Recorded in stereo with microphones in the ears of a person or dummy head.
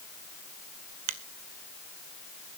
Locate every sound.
1.1 s a finger snap: 40° right (ahead or behind), 0.6 m